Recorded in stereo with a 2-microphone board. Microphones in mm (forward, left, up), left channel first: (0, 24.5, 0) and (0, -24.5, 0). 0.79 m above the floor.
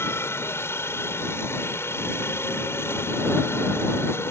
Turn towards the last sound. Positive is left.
turn(degrees=55)  # may be behind; listen again after turning